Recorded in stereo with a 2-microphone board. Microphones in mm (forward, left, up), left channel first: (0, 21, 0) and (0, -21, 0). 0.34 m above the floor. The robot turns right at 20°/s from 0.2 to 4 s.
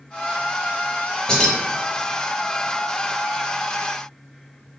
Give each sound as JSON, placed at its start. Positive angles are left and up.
{"t": 1.3, "sound": "keys jangling", "side_deg": 20, "distance_m": 0.7}